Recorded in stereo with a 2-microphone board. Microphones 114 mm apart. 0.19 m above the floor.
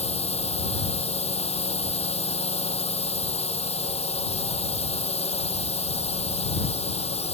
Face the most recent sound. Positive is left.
turn(degrees=65)  # may be behind; listen again after turning